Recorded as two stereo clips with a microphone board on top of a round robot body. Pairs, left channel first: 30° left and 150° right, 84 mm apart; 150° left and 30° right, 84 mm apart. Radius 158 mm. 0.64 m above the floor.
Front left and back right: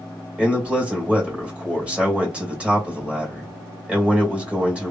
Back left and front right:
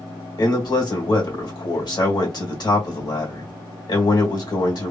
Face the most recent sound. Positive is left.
turn(degrees=135)